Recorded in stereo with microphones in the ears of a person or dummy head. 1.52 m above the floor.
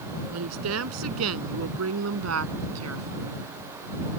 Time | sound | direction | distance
0.3 | a woman speaking | 85° right | ?